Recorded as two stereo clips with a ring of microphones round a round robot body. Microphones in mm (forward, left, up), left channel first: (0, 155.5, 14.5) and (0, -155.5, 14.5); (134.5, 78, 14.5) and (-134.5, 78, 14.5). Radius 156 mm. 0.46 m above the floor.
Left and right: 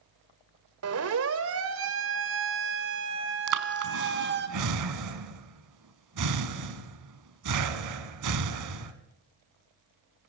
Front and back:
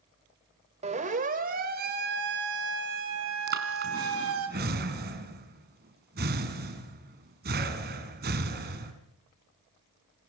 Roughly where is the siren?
Behind right.